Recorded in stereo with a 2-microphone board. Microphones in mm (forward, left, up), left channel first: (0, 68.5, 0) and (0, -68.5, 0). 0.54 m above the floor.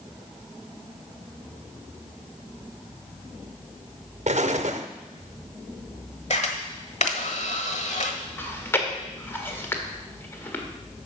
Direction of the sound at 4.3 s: 65° right (ahead or behind).